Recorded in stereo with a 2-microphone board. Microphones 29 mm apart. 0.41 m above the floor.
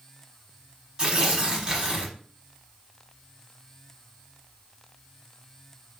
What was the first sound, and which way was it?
Tearing paper, 30° right (ahead or behind).